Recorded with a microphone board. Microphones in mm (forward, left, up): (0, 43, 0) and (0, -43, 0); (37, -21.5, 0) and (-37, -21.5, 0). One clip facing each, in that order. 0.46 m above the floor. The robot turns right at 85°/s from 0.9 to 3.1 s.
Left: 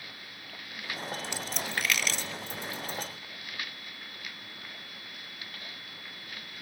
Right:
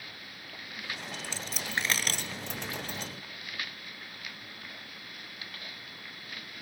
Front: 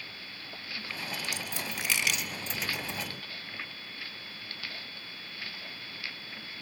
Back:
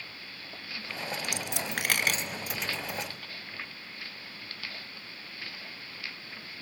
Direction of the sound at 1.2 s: 155° left.